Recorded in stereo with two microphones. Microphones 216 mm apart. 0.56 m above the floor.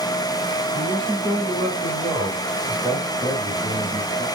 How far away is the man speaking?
About 4 m.